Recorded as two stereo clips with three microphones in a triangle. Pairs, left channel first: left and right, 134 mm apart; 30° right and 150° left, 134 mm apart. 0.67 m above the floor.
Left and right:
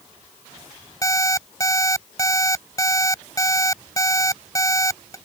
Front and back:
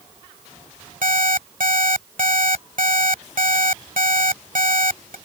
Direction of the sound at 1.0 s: 150° left.